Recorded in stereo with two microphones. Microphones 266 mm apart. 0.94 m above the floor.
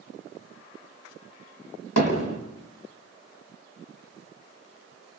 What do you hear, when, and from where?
2.0 s hammering: 75° left (ahead or behind), 6 m